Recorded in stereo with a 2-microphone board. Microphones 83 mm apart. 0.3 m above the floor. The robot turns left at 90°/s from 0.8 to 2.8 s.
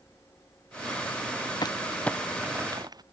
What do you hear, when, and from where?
1.6 s crumpling: 55° left (ahead or behind); by 3.0 s 50° right (ahead or behind)